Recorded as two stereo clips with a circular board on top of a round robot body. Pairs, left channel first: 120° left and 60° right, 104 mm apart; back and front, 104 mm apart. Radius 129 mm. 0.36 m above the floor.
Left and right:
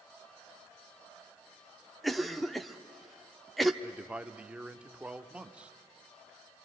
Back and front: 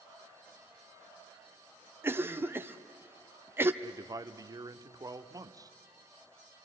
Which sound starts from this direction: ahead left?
A cough, at 2.0 s.